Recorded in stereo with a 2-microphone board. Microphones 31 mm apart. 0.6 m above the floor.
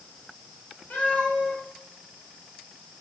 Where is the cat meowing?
85° left, 7.5 m.